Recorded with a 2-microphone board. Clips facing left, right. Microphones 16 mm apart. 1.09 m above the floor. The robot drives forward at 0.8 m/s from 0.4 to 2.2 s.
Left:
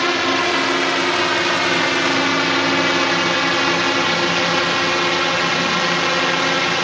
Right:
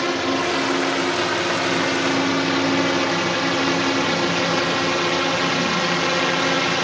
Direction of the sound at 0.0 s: 35° left (ahead or behind).